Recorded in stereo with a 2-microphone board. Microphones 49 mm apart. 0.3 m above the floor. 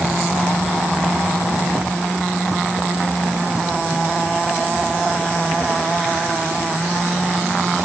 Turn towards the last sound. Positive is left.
No sound to turn to.